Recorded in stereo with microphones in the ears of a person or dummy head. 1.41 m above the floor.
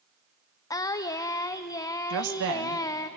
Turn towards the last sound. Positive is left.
turn(degrees=-75)  # may be behind; listen again after turning